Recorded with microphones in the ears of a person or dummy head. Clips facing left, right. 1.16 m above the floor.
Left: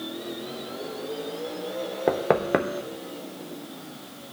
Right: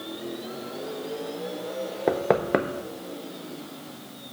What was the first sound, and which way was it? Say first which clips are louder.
Knocking: even; centre (ahead or behind).